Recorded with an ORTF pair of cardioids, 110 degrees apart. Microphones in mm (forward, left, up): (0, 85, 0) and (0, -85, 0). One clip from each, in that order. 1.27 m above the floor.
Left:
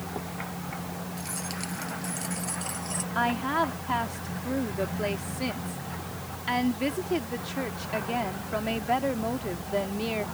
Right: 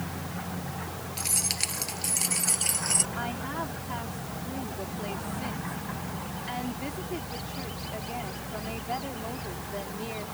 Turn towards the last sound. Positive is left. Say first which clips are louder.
# left 7 dB
turn(degrees=50)